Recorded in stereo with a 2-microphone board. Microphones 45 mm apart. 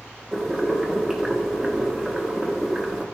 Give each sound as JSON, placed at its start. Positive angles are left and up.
{"t": 0.3, "sound": "boiling", "side_deg": -10, "distance_m": 1.2}